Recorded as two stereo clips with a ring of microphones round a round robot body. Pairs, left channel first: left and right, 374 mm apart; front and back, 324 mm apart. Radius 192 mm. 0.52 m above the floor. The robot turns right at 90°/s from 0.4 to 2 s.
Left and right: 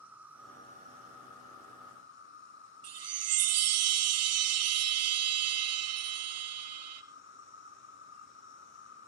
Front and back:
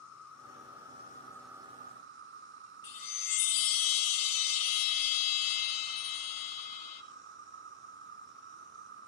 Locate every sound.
0.0 s an insect: 5° right, 3 m; by 9.1 s 140° left, 3 m
2.8 s a chime: 35° right, 0.7 m